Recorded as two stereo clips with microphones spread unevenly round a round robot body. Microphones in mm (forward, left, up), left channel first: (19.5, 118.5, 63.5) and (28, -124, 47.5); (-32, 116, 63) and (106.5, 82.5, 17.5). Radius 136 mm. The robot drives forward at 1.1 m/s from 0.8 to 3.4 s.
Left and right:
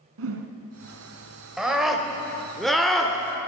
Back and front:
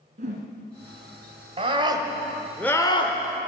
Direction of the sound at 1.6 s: Straight ahead.